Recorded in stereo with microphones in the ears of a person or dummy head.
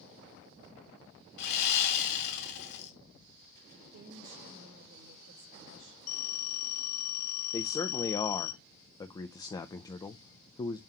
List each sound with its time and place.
1.4 s sawing: 60° left (ahead or behind), 2.5 m
3.7 s a woman speaking: 60° right (ahead or behind), 1.8 m
6.1 s a phone ringing: 80° left, 1.7 m
7.5 s a man speaking: 25° left (ahead or behind), 0.5 m